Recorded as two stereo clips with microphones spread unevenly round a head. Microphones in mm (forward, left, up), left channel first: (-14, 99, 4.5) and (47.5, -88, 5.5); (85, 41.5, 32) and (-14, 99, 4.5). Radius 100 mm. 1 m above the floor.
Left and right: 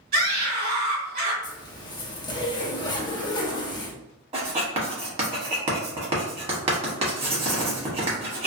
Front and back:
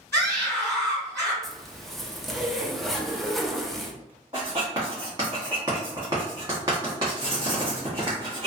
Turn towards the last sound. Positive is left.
turn(degrees=-135)